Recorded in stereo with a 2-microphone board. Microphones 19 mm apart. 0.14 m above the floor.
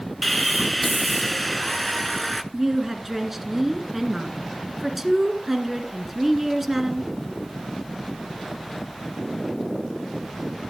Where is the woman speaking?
15° right (ahead or behind), 1.6 m.